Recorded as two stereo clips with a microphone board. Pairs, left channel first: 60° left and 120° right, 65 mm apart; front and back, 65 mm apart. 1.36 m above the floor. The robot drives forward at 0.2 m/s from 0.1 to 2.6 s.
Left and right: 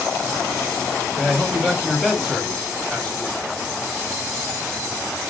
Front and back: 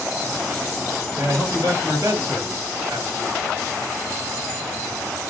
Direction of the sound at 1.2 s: 140° left.